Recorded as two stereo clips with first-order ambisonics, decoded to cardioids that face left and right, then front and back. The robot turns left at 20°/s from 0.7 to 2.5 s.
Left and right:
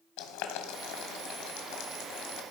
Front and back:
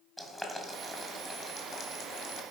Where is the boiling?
85° left, 1.9 m; by 2.4 s 55° left, 1.9 m.